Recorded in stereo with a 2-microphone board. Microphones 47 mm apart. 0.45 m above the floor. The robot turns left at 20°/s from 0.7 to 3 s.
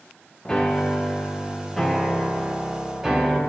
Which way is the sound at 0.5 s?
15° left (ahead or behind).